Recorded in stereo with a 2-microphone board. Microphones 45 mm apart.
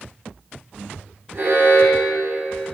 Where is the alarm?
55° right (ahead or behind), 3 m.